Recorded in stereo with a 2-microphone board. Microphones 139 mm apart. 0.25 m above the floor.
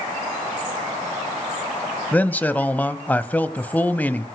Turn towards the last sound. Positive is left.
turn(degrees=10)  # may be behind; listen again after turning